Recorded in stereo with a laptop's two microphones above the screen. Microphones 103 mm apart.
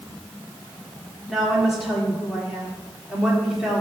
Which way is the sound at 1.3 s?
5° right (ahead or behind).